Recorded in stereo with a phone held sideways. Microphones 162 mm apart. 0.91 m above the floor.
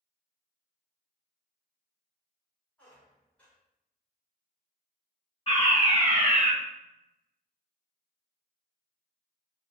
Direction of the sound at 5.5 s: 30° left (ahead or behind).